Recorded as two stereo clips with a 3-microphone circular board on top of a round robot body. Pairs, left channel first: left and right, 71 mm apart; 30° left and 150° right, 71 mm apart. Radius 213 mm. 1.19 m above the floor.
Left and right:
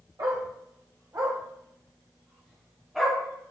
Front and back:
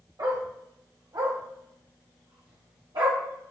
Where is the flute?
I don't hear a flute.